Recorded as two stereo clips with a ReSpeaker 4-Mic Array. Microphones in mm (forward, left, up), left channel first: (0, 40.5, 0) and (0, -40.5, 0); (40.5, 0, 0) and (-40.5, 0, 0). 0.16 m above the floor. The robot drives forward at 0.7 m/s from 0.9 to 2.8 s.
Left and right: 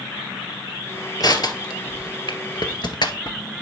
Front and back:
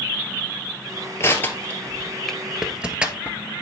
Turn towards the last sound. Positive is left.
turn(degrees=105)